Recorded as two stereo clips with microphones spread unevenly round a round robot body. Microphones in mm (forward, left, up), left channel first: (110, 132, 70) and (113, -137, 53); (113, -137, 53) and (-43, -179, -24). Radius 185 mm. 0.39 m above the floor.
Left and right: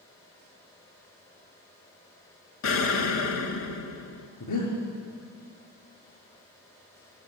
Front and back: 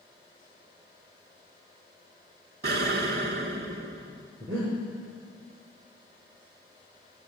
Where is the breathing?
115° left, 5.5 m.